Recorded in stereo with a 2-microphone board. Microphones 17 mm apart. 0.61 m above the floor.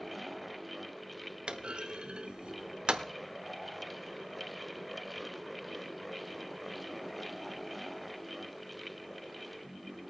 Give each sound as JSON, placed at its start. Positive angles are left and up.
{"t": 1.5, "sound": "a clunk", "side_deg": -75, "distance_m": 0.8}